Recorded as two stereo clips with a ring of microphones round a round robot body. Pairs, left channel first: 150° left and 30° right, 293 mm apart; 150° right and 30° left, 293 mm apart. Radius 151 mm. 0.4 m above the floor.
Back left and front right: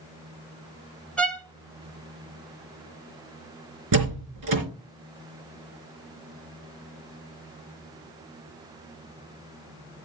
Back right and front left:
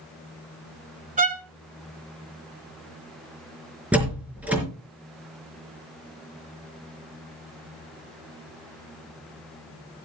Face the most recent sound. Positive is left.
turn(degrees=-55)